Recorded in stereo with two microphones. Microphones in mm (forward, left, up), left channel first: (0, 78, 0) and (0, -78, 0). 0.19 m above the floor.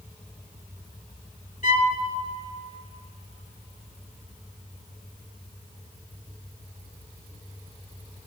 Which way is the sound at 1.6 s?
60° left (ahead or behind).